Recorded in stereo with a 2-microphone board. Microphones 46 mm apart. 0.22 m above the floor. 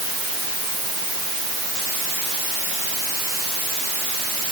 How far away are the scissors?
No scissors in this recording.